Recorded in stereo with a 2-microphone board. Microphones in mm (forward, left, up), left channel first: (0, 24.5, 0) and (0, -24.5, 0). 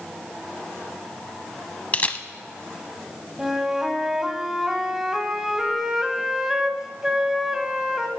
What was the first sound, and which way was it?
A camera shutter, 30° left (ahead or behind).